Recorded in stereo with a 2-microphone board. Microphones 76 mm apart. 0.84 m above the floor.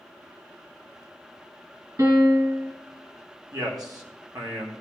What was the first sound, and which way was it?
A piano, 55° right (ahead or behind).